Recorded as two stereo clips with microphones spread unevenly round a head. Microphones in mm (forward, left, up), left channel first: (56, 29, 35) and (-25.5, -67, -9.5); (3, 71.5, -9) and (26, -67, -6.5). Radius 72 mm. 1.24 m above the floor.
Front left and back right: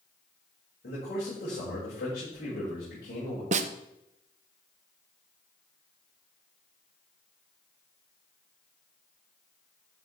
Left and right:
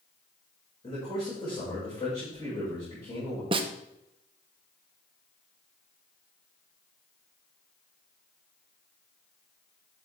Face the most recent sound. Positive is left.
turn(degrees=-140)